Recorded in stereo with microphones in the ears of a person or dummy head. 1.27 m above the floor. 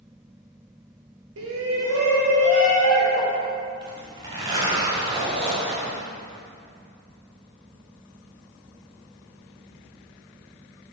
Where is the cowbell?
I don't hear a cowbell.